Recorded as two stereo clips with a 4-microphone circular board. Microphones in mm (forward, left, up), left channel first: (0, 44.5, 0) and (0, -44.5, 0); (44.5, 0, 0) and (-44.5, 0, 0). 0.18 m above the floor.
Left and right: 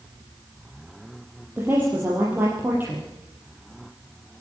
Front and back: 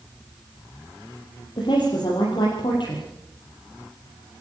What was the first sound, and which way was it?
A woman speaking, 20° right.